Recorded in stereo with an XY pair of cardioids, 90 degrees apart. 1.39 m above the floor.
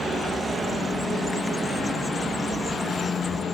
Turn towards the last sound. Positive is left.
turn(degrees=10)